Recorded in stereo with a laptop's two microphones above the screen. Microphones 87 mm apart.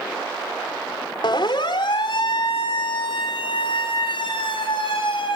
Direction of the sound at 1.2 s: 60° left (ahead or behind).